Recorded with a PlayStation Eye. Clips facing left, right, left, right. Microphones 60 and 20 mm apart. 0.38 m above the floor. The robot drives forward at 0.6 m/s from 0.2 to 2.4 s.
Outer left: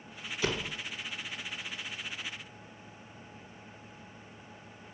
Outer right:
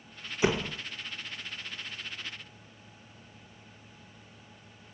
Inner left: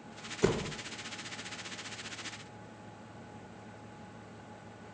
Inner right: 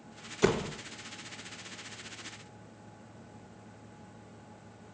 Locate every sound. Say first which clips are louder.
0.4 s a door slam: outer right 6 dB, inner right 3 dB; 20° right (ahead or behind), 0.5 m; by 0.8 s 15° right (ahead or behind), 0.7 m